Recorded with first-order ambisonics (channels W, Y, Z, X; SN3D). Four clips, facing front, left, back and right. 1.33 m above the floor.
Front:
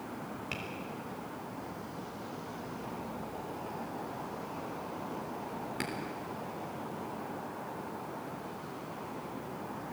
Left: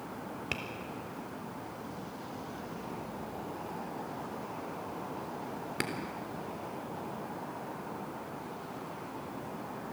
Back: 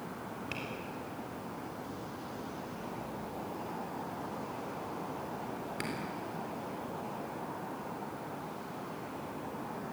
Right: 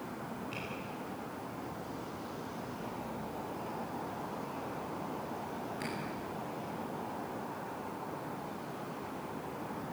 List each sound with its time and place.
0.5 s tapping: 85° left, 3.5 m